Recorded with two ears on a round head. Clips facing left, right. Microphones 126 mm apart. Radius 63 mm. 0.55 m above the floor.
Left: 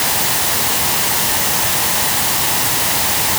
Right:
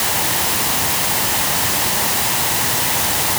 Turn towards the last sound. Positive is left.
No sound to turn to.